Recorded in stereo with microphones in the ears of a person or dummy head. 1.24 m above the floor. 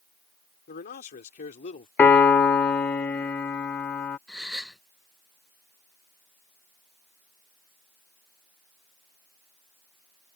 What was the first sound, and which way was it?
A man speaking, 50° left (ahead or behind).